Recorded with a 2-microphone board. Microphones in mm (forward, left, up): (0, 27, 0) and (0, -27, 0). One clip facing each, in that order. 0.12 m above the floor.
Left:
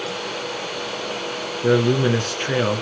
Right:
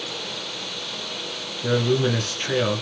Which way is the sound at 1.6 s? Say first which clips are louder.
Left 4 dB; 15° left (ahead or behind).